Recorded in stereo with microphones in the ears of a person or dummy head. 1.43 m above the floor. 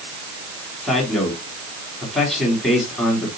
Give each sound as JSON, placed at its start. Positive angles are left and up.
{"t": 0.8, "sound": "a man speaking", "side_deg": 5, "distance_m": 3.5}